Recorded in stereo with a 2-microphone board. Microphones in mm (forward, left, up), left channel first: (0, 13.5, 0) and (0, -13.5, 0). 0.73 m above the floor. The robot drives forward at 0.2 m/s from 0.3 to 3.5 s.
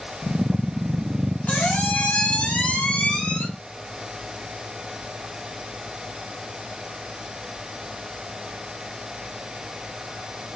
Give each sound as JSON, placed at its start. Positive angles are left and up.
{"t": 1.5, "sound": "a squeak", "side_deg": 65, "distance_m": 0.9}